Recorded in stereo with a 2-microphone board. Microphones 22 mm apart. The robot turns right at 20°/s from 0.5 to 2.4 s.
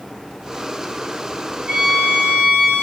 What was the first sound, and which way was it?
A violin, 70° right (ahead or behind).